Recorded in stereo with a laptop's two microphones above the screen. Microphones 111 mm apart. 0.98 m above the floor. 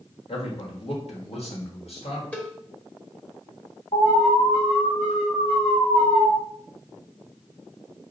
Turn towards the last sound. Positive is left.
turn(degrees=75)  # may be behind; listen again after turning